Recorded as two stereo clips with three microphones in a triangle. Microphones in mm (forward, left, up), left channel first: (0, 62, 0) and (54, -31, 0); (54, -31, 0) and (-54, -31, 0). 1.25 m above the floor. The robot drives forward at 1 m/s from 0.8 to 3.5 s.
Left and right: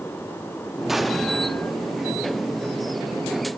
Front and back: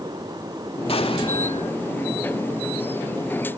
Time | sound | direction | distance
0.9 | an explosion | 25° left | 1.7 m